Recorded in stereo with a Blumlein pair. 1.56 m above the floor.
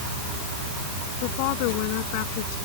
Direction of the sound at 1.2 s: 45° left.